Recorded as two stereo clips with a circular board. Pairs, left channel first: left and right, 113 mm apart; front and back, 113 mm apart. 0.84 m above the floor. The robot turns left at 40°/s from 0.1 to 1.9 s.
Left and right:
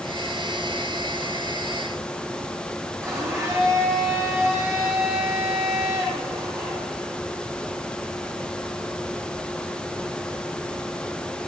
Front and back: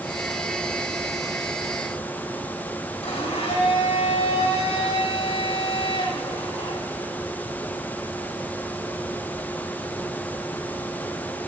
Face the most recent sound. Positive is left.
turn(degrees=-30)